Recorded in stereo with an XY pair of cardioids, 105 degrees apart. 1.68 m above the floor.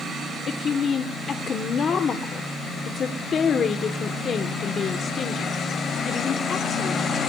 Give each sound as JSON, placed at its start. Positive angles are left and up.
{"t": 0.5, "sound": "a woman speaking", "azimuth_deg": 50, "distance_m": 1.2}